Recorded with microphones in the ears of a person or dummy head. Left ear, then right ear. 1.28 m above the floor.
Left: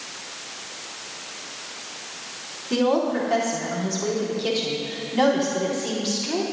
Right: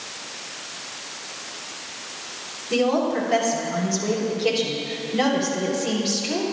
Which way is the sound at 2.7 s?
60° left (ahead or behind).